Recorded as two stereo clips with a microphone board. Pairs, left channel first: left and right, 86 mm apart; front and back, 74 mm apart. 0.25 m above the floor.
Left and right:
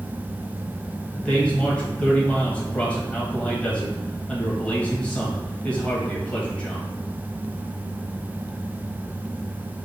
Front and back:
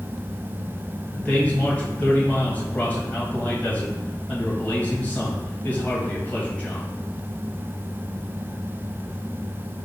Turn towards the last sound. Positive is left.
turn(degrees=35)